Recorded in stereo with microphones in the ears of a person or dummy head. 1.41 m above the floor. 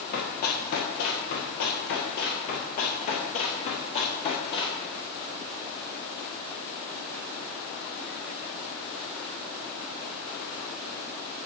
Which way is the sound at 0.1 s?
45° left (ahead or behind).